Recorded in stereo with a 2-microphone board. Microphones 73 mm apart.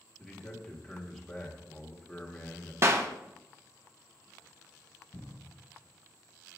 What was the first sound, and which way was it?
A man speaking, 5° left (ahead or behind).